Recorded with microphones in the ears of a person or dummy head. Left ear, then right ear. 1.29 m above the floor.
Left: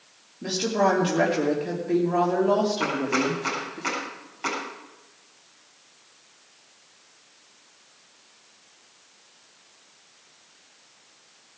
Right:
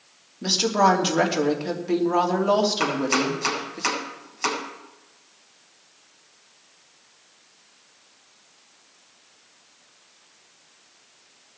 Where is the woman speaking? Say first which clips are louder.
Right 4 dB; 35° right (ahead or behind), 3 m.